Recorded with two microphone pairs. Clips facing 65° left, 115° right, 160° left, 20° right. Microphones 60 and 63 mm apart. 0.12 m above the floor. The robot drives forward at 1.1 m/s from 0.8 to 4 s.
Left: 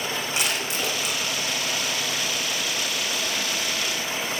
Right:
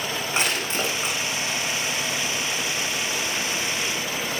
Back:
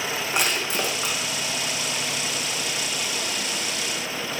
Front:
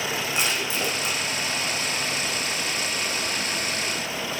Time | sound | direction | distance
0.3 | crushing | 170° right | 9 m